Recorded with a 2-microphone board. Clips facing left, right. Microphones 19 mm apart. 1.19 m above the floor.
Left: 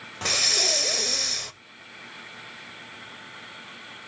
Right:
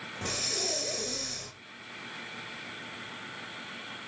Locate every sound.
0.2 s breathing: 60° left (ahead or behind), 0.9 m